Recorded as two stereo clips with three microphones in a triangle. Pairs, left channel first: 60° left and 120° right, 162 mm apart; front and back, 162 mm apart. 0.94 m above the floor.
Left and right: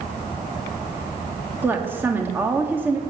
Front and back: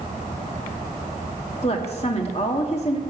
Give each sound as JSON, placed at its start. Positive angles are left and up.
{"t": 1.6, "sound": "a woman speaking", "azimuth_deg": -45, "distance_m": 1.9}